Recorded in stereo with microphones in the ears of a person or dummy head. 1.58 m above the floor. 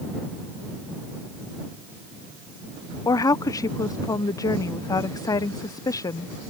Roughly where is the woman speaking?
Centre.